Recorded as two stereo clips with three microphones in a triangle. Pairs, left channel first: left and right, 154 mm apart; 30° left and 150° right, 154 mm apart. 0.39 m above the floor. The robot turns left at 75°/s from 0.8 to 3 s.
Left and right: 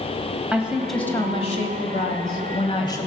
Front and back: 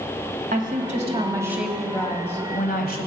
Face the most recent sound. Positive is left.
turn(degrees=20)